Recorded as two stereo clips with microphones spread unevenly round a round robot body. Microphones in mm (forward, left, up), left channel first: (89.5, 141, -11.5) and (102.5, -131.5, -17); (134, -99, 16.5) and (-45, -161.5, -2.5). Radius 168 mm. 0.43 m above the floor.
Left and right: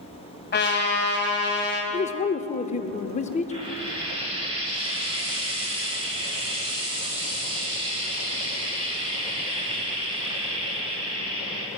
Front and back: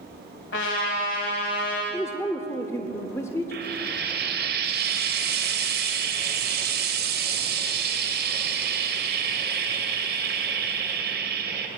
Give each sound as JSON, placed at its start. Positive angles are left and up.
{"t": 0.5, "sound": "a trumpet", "azimuth_deg": 45, "distance_m": 3.0}
{"t": 1.9, "sound": "a man speaking", "azimuth_deg": 90, "distance_m": 0.7}
{"t": 3.5, "sound": "frying", "azimuth_deg": -160, "distance_m": 1.6}